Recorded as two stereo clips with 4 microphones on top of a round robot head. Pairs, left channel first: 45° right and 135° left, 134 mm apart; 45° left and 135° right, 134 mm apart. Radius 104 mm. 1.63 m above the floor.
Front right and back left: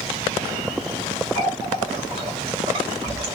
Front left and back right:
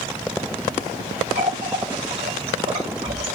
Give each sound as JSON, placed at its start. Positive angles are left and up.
{"t": 1.4, "sound": "a running tap", "azimuth_deg": 180, "distance_m": 2.5}